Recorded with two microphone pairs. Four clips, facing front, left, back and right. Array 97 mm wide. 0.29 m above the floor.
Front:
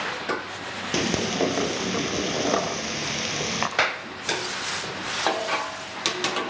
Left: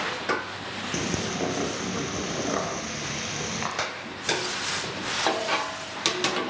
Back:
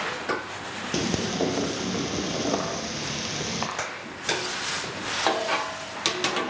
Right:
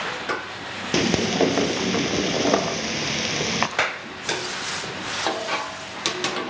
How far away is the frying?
About 2.5 m.